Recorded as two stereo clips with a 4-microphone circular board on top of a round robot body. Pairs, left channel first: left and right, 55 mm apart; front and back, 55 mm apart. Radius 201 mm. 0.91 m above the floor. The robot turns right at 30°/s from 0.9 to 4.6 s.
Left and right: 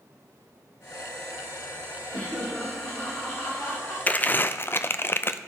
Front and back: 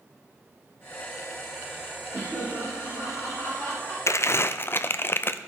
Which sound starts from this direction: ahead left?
Crumpling, at 4.1 s.